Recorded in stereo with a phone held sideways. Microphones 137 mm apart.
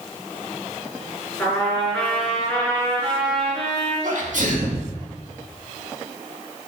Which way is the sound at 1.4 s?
5° left (ahead or behind).